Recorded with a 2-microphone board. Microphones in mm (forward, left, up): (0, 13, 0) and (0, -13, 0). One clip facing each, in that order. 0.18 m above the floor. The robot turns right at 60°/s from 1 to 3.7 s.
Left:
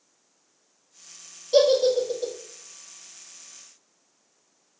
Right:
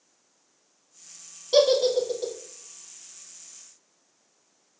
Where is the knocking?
No knocking in this recording.